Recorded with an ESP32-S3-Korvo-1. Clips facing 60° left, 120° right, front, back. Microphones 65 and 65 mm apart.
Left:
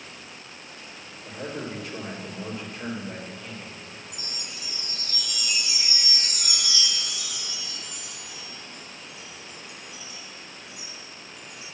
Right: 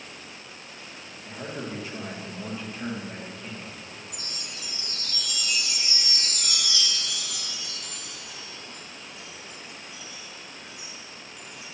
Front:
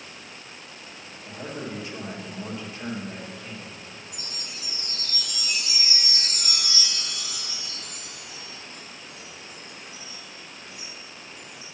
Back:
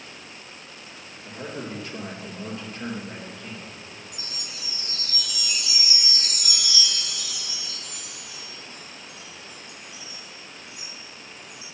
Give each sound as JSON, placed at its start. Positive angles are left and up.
{"t": 1.2, "sound": "a man speaking", "azimuth_deg": 150, "distance_m": 3.0}
{"t": 4.1, "sound": "a chime", "azimuth_deg": -20, "distance_m": 1.1}